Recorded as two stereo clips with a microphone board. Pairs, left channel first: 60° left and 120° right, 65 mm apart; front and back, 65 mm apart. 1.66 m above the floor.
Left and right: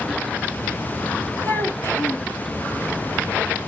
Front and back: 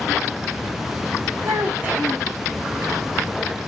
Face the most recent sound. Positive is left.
turn(degrees=115)